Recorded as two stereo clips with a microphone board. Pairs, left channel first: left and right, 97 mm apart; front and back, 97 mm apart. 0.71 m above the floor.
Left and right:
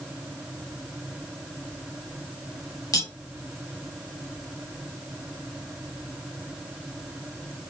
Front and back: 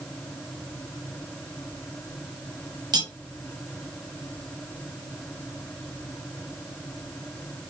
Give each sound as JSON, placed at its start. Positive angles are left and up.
{"t": 2.9, "sound": "cutlery clinking", "azimuth_deg": 135, "distance_m": 0.8}